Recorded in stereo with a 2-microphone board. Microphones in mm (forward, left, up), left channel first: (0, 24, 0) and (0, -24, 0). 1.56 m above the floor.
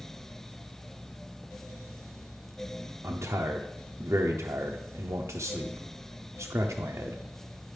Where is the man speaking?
75° right (ahead or behind), 0.6 m.